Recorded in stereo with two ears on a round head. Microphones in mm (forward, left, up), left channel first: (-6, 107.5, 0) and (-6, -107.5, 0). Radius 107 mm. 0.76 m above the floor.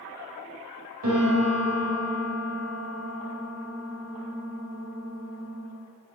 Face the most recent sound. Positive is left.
turn(degrees=-65)  # may be behind; listen again after turning